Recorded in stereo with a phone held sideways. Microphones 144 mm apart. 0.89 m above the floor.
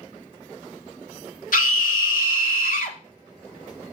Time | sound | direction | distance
1.5 | a scream | 70° left (ahead or behind) | 1.7 m